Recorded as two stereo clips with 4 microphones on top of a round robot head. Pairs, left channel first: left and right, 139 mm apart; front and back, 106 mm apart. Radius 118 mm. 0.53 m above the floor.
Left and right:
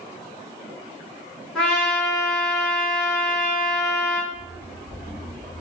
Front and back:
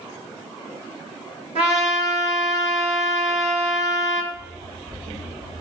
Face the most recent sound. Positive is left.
turn(degrees=-145)